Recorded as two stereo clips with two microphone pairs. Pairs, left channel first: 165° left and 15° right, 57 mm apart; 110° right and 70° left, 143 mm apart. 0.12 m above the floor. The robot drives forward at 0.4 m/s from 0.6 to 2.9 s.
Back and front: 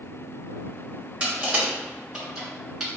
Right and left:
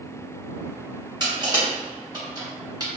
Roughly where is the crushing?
Ahead left.